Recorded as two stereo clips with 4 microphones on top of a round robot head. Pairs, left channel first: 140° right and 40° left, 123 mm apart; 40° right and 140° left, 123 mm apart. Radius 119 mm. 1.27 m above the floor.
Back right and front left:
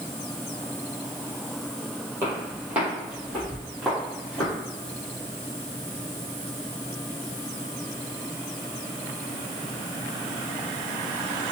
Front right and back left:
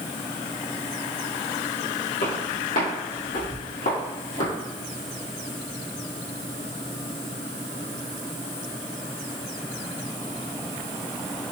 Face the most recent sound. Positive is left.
turn(degrees=-55)